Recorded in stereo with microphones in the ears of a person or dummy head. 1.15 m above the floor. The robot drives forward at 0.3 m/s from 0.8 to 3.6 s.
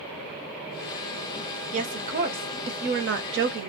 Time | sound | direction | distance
1.7 | a woman speaking | 40° right (ahead or behind) | 1.0 m